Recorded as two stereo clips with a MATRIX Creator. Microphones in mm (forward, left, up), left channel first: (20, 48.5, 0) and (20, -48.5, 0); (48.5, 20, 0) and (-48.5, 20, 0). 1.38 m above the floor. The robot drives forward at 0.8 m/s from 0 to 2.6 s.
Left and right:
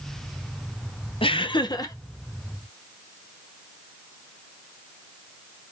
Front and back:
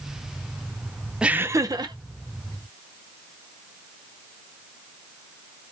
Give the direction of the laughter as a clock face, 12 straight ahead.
9 o'clock.